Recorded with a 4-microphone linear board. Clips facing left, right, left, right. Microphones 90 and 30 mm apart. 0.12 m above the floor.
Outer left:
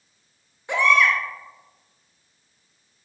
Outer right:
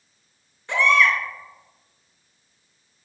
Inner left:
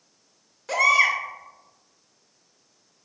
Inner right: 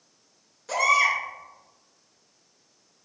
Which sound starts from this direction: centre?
A baby crying, at 0.7 s.